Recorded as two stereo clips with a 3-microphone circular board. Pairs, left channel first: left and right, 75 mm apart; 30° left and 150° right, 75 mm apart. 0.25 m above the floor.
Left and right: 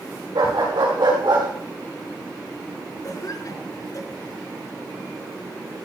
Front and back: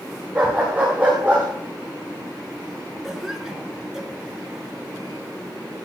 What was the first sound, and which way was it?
A dog barking, 75° right.